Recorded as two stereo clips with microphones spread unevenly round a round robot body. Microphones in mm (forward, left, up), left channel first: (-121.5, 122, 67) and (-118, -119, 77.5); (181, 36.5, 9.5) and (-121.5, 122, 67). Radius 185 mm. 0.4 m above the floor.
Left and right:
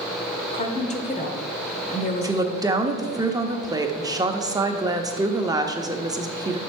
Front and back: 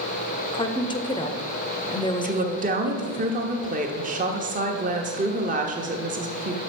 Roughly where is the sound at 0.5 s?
Ahead left.